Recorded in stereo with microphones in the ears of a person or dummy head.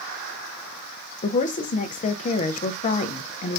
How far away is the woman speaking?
About 0.6 m.